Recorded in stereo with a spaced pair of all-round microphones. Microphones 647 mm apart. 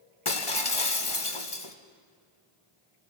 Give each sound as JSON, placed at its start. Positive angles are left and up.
{"t": 0.2, "sound": "breaking glass", "side_deg": 50, "distance_m": 1.4}